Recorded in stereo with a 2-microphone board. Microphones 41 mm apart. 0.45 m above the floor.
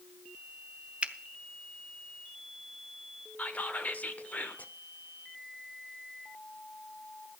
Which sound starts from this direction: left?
Whispering, at 3.4 s.